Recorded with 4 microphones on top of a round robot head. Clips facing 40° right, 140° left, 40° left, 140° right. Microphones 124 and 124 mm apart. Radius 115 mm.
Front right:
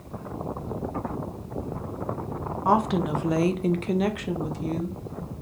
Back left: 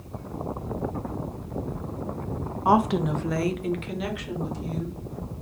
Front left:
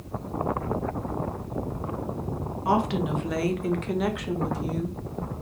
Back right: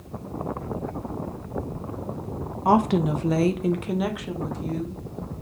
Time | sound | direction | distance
2.6 | a woman speaking | 145° right | 0.8 m